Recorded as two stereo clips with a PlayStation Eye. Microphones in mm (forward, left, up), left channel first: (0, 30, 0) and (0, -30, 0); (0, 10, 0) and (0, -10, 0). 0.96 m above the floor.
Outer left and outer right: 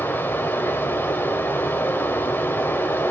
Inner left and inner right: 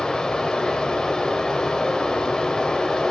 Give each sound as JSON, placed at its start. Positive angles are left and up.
{"t": 0.0, "sound": "running water", "side_deg": 35, "distance_m": 1.1}